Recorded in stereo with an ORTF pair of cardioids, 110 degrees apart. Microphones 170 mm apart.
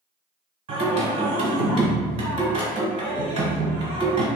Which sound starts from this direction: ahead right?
Singing, at 0.7 s.